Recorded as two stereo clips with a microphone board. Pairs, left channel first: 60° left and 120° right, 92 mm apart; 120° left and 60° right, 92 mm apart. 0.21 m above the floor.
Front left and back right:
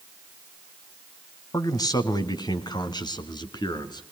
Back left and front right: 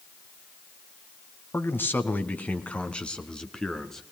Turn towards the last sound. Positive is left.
turn(degrees=35)